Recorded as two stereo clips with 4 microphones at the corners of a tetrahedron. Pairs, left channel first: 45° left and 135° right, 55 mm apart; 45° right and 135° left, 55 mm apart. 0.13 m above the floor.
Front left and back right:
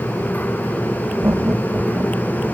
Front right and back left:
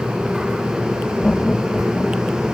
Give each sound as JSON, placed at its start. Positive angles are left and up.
{"t": 1.2, "sound": "laughter", "azimuth_deg": -115}